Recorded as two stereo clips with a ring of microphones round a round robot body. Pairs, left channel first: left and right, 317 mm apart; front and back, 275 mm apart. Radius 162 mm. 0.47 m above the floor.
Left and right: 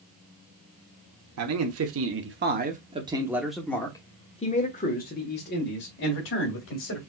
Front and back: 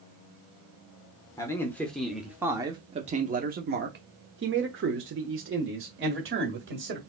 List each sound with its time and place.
1.4 s a man speaking: 75° right, 1.2 m; by 7.0 s 140° left, 2 m